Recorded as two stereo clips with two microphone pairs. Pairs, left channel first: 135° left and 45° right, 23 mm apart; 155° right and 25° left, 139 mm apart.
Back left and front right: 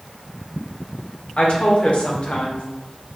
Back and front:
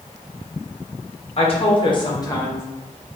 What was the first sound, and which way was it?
A woman speaking, 160° left.